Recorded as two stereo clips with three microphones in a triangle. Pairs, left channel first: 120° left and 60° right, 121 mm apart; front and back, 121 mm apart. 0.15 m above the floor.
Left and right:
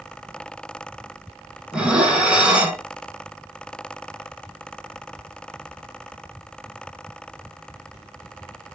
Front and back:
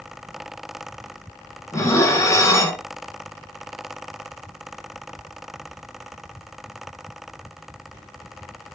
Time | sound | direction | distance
1.7 | dishes clattering | 10° left | 0.8 m